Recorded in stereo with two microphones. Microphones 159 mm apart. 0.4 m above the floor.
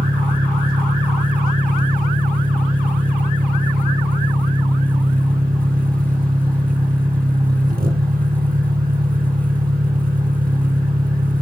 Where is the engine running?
85° right, 1.2 m.